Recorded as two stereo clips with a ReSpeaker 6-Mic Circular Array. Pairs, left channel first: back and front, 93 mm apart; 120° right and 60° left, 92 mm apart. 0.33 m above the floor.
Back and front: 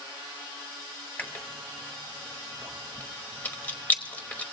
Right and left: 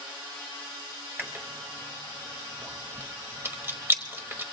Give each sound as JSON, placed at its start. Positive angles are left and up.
{"t": 1.2, "sound": "chewing", "azimuth_deg": 115, "distance_m": 1.0}